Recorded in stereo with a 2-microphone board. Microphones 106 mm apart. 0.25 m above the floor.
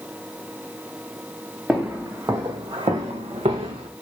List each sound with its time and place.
1.7 s footsteps: 5° right (ahead or behind), 1.2 m; by 3.9 s 85° right, 1.5 m